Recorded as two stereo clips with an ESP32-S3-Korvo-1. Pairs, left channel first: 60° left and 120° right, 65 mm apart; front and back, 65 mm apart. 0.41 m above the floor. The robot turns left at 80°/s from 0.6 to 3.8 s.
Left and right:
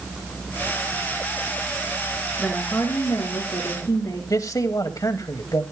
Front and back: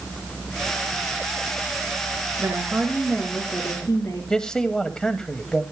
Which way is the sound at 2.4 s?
140° left.